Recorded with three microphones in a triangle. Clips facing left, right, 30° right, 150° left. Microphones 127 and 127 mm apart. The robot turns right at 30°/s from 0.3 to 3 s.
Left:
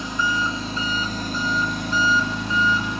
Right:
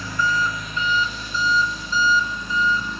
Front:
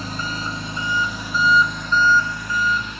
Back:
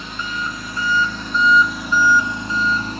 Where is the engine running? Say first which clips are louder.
Right 1 dB, even; 20° left, 1.6 m; by 3.0 s 100° left, 1.6 m.